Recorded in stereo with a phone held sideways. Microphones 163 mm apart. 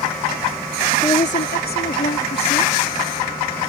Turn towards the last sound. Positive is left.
turn(degrees=85)